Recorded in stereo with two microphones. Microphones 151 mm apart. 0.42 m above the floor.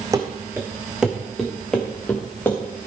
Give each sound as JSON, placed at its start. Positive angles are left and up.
{"t": 0.1, "sound": "running footsteps", "side_deg": -20, "distance_m": 1.9}